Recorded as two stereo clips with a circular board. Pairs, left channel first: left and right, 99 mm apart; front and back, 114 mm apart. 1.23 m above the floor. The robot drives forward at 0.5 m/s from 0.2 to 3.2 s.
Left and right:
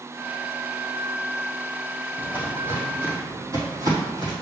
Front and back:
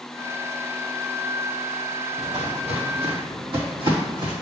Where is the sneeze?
I don't hear a sneeze.